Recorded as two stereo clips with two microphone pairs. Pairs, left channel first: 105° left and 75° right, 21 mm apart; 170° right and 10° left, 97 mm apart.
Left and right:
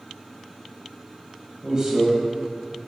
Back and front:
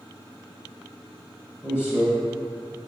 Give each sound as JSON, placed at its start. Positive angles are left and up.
{"t": 1.6, "sound": "a man speaking", "azimuth_deg": -125, "distance_m": 1.5}